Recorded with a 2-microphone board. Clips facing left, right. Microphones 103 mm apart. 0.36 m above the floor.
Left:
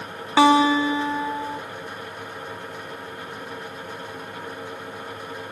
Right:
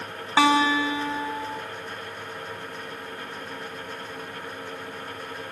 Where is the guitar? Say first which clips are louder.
Left 4 dB; 20° left (ahead or behind), 0.7 m.